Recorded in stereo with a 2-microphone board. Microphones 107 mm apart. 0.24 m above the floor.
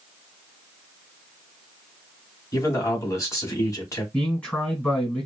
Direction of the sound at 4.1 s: 10° left (ahead or behind).